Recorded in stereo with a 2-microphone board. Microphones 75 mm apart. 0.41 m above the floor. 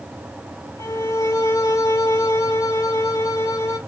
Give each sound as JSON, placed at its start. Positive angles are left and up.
{"t": 0.8, "sound": "a violin", "side_deg": 45, "distance_m": 0.8}